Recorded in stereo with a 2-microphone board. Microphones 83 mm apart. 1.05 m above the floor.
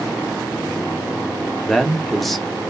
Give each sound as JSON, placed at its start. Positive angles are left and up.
{"t": 1.6, "sound": "a man speaking", "side_deg": 0, "distance_m": 0.5}